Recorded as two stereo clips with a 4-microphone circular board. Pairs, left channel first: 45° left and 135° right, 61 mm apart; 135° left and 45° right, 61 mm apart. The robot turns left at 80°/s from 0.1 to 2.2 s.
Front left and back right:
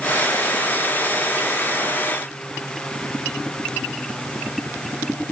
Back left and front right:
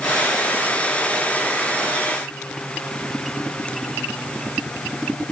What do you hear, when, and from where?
Only background noise.